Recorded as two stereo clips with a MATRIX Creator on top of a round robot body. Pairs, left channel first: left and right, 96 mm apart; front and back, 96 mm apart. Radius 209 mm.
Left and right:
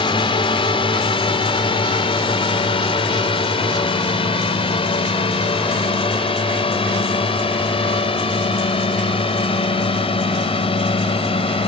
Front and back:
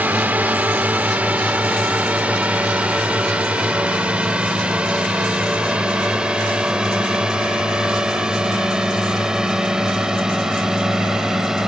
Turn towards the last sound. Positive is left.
turn(degrees=95)